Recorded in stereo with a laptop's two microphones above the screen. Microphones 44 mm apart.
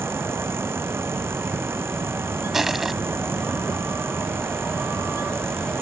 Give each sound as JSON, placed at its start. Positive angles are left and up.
{"t": 0.0, "sound": "a fan", "side_deg": -60}
{"t": 2.5, "sound": "crushing", "side_deg": -10}